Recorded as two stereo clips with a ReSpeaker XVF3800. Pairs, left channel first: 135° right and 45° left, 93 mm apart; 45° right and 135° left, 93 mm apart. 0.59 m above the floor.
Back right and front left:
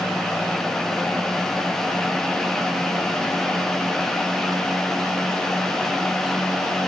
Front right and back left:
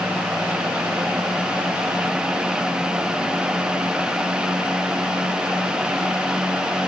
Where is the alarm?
No alarm in this recording.